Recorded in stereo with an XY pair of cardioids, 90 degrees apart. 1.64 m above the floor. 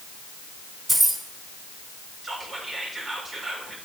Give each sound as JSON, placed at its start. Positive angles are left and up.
{"t": 0.9, "sound": "keys jangling", "azimuth_deg": -25, "distance_m": 3.0}
{"t": 2.2, "sound": "whispering", "azimuth_deg": -40, "distance_m": 2.5}